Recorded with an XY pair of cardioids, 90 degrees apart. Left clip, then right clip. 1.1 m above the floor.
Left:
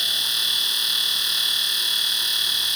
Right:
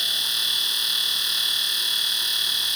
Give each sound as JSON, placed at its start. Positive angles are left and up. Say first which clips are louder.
{"t": 0.0, "sound": "a machine running", "louder": "left 1 dB", "azimuth_deg": 20}